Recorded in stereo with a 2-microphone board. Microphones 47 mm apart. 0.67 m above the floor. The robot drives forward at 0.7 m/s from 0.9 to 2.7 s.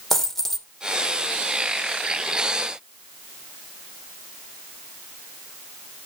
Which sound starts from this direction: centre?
A dropped coin, at 0.1 s.